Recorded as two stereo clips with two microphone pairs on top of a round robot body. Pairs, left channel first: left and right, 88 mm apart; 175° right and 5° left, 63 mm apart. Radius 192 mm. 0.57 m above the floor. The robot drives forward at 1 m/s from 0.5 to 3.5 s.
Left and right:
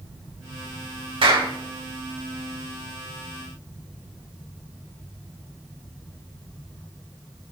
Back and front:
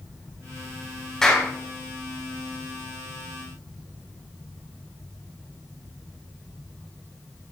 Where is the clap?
95° right, 3.5 m; by 1.5 s 100° right, 3.5 m.